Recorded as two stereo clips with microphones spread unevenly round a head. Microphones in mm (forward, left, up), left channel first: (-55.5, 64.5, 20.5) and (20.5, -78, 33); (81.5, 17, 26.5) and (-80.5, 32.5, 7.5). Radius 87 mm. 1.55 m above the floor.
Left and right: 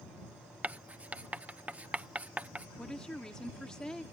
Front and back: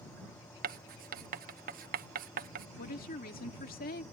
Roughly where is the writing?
Behind right.